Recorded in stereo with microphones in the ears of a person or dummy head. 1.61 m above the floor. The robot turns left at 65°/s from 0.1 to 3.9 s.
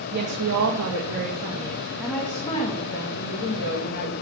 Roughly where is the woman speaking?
Ahead right.